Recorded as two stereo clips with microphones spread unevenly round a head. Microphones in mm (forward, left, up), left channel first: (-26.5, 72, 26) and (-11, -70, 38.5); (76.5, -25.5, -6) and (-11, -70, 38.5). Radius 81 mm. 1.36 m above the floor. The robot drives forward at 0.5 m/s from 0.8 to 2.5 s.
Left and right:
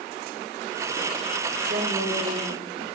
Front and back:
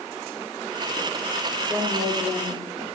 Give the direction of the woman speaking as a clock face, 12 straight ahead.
3 o'clock.